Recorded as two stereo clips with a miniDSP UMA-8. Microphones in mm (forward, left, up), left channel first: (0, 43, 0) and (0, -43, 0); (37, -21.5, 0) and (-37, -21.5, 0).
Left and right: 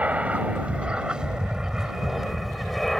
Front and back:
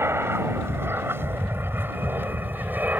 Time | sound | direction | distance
0.0 | an aircraft | 155° right | ?